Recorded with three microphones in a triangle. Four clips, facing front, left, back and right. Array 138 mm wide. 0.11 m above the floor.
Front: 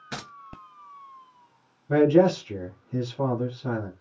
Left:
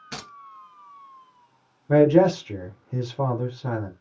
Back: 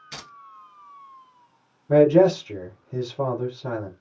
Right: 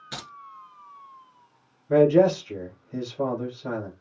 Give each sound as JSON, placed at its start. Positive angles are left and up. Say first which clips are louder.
{"t": 0.1, "sound": "keys jangling", "louder": "left 1 dB, front 5 dB", "azimuth_deg": 10, "distance_m": 1.1}
{"t": 1.9, "sound": "a man speaking", "louder": "left 1 dB, back 3 dB", "azimuth_deg": 110, "distance_m": 2.5}